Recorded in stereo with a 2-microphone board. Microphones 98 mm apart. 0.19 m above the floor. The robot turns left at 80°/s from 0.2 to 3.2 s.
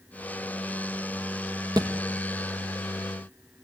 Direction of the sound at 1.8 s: 45° right (ahead or behind).